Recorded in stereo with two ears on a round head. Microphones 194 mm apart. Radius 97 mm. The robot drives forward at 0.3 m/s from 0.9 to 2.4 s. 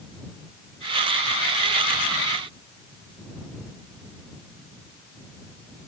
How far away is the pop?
I don't hear a pop.